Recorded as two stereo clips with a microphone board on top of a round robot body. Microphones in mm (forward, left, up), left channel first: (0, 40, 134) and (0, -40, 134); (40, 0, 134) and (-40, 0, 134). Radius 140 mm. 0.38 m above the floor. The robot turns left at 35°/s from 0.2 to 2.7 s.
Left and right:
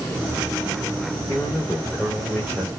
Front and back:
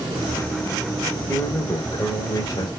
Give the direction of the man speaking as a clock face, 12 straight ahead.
11 o'clock.